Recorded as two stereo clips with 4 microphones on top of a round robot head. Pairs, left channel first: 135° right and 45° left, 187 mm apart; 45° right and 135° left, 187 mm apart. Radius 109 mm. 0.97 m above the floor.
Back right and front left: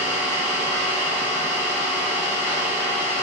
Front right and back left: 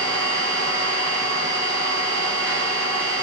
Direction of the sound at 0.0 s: 160° left.